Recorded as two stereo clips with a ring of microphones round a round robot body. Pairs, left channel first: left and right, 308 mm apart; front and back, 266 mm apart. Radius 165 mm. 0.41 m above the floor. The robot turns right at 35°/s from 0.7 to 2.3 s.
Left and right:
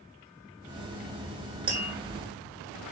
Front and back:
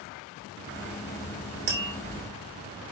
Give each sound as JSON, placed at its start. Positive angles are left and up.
{"t": 1.7, "sound": "tapping", "azimuth_deg": -165, "distance_m": 4.0}